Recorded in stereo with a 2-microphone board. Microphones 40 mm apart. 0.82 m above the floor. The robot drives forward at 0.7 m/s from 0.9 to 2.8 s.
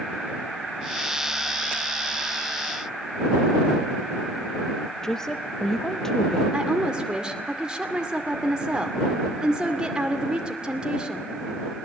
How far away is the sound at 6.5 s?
About 2 m.